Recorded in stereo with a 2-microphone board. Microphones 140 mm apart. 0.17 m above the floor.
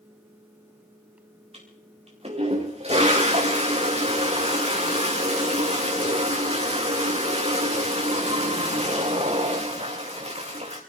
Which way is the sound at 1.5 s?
45° right (ahead or behind).